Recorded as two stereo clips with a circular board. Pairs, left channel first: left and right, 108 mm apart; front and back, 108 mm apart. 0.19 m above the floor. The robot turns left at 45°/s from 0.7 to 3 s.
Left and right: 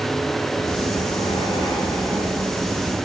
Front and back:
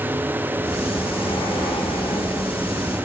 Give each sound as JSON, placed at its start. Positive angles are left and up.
{"t": 0.6, "sound": "breathing", "azimuth_deg": 80, "distance_m": 6.0}